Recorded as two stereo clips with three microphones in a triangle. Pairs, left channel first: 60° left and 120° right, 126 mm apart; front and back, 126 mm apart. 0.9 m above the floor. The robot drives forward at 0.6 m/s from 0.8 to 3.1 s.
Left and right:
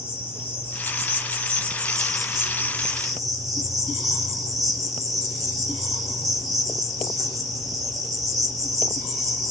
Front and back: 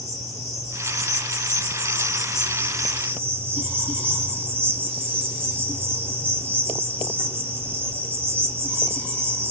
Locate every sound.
0.0 s an insect: 10° right, 1.3 m; by 9.5 s 130° right, 0.6 m